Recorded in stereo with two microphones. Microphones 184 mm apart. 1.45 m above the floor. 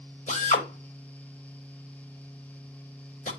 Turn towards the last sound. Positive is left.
turn(degrees=45)  # may be behind; listen again after turning